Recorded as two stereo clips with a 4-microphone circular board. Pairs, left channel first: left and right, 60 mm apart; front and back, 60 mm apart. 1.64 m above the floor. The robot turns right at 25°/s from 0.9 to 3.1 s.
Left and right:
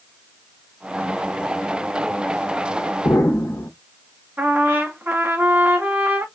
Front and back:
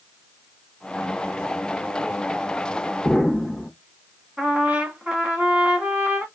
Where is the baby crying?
No baby crying in this recording.